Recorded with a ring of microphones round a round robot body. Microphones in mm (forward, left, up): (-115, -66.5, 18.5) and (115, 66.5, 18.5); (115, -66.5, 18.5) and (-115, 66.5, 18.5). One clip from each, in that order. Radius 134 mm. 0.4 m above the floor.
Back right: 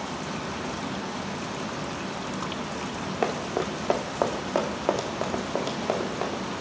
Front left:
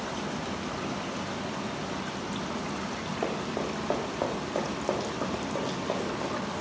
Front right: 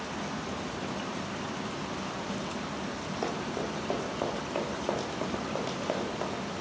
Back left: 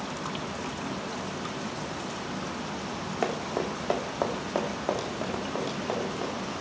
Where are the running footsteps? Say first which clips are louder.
Back right 5 dB, back left 5 dB; 175° right, 2 m; by 6.4 s 105° right, 3 m.